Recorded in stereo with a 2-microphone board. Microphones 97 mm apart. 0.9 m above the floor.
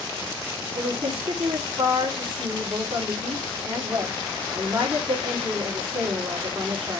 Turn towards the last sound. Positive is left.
turn(degrees=-70)  # may be behind; listen again after turning